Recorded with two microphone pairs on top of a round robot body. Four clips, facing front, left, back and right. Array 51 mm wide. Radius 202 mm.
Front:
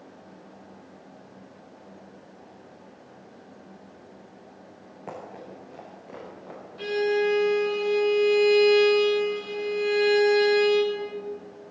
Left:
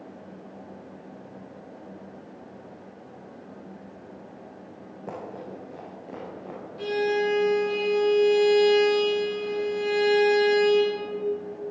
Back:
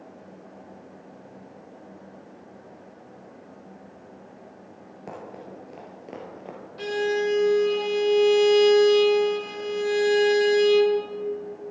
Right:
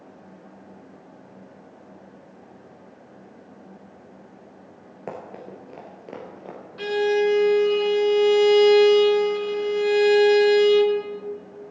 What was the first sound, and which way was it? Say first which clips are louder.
Running footsteps: right 1 dB, even; 95° right.